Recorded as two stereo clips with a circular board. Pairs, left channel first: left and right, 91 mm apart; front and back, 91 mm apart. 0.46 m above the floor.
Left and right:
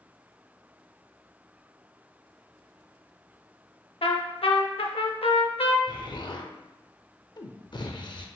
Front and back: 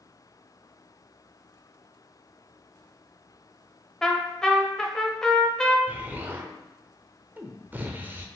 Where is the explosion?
115° left, 0.6 m.